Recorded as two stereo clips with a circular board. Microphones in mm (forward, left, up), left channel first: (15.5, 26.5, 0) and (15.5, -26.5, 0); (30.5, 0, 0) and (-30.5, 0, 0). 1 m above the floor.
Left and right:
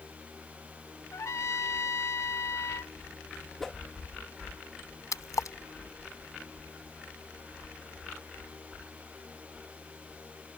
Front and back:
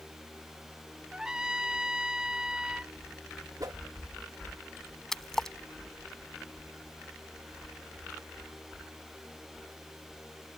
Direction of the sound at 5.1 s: 85° left.